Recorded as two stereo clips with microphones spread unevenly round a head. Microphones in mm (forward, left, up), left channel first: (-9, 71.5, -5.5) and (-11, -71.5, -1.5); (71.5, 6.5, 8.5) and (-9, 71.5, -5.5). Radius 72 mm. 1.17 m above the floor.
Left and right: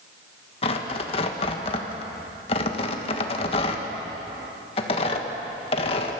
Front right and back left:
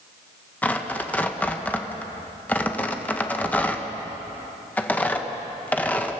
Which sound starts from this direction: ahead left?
Tearing paper, at 0.6 s.